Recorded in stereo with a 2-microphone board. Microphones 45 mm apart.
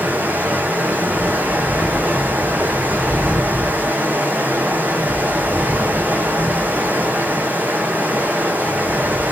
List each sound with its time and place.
0.0 s running water: 40° right (ahead or behind), 0.8 m